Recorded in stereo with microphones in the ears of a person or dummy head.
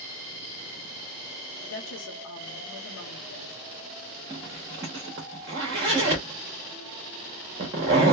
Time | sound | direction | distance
1.6 | a woman speaking | 70° left (ahead or behind) | 0.7 m
4.3 | a zipper | 20° right (ahead or behind) | 0.9 m